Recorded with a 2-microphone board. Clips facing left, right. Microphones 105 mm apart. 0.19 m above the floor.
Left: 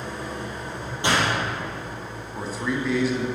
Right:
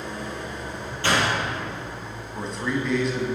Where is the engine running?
40° left (ahead or behind), 2.5 m.